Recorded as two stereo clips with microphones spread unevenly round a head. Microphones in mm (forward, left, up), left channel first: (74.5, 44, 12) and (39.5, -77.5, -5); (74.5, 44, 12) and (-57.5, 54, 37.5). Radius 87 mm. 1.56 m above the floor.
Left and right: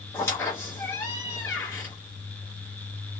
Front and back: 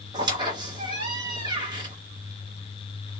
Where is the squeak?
140° left, 1.2 m.